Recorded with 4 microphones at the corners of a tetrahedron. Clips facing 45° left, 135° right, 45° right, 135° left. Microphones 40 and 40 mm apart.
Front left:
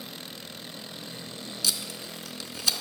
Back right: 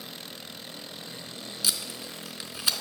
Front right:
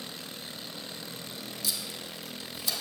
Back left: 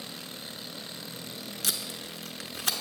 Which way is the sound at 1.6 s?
155° left.